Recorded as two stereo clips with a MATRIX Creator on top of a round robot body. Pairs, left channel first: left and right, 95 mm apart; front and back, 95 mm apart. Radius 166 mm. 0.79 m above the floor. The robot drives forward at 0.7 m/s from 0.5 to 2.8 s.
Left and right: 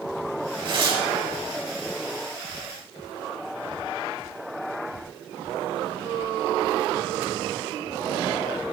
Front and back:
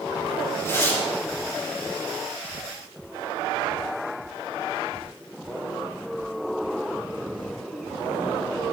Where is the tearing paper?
60° right, 5.5 m; by 1.1 s 65° right, 5.5 m.